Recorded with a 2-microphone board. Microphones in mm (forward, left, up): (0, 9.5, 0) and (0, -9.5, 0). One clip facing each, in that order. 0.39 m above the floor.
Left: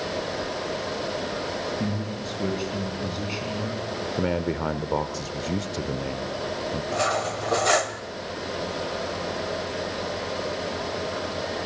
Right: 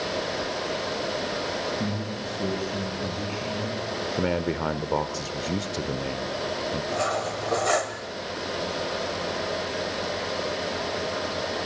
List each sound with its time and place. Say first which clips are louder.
1.8 s a man speaking: even; 45° left (ahead or behind), 4.5 m
4.2 s a man speaking: even; 10° right (ahead or behind), 0.8 m
6.9 s cutlery clinking: left 4 dB; 30° left (ahead or behind), 0.9 m